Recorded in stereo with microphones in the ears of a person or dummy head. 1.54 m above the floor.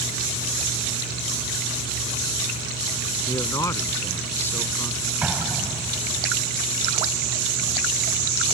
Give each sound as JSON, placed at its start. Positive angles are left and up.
{"t": 3.3, "sound": "a man speaking", "side_deg": 20}
{"t": 5.2, "sound": "an explosion", "side_deg": -5}